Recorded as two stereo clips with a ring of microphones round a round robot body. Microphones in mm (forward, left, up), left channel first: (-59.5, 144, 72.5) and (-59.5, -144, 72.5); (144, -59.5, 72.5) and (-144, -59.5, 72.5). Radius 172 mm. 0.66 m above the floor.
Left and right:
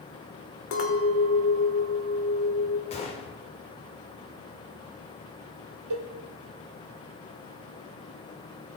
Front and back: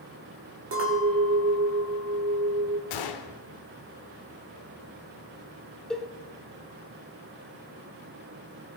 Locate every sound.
0.7 s a clink: 130° left, 1.7 m
2.9 s a gunshot: 20° left, 0.6 m
5.9 s a cowbell: 90° right, 1.2 m